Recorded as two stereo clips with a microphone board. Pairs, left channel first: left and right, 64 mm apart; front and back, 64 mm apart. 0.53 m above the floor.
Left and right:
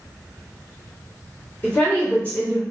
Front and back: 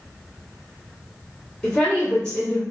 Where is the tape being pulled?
No tape being pulled in this recording.